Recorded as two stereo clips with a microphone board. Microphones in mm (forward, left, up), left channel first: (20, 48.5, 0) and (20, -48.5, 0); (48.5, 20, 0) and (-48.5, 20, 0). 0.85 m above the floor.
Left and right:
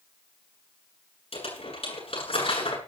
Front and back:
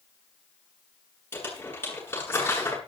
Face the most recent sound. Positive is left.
turn(degrees=70)